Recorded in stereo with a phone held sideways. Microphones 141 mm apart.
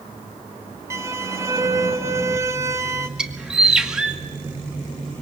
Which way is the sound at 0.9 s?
20° right (ahead or behind).